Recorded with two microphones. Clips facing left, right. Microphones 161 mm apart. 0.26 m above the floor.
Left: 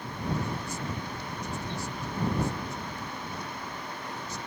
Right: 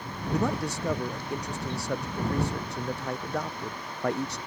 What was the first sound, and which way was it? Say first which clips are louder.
A man speaking: right 9 dB; 70° right (ahead or behind).